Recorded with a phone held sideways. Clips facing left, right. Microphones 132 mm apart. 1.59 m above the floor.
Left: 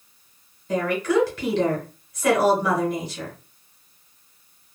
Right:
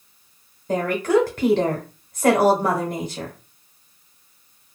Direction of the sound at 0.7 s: 50° right (ahead or behind).